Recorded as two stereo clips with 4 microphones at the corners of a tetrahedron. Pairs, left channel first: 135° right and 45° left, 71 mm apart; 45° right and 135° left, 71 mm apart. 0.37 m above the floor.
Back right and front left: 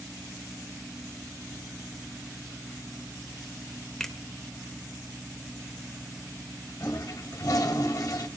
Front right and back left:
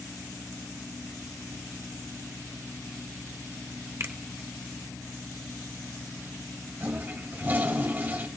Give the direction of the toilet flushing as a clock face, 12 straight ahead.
6 o'clock.